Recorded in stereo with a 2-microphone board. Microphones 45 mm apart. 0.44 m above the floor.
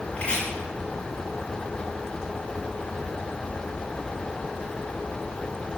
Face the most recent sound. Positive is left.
turn(degrees=25)  # may be behind; listen again after turning